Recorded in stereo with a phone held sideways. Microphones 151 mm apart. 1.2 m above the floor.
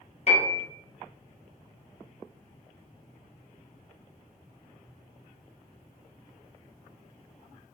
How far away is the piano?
About 1.3 m.